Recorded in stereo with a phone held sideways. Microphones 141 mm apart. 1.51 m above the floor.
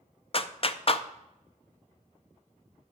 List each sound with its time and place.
0.3 s a clap: 45° left (ahead or behind), 0.6 m